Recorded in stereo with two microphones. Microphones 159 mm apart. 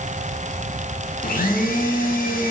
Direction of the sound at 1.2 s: 65° left (ahead or behind).